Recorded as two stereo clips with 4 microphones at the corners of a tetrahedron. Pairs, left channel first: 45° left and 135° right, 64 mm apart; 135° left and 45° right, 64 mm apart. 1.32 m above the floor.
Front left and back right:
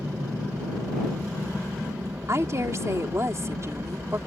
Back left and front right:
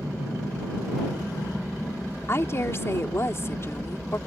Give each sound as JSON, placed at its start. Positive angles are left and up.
{"t": 0.0, "sound": "an aircraft", "azimuth_deg": -120}
{"t": 2.3, "sound": "a woman speaking", "azimuth_deg": -175}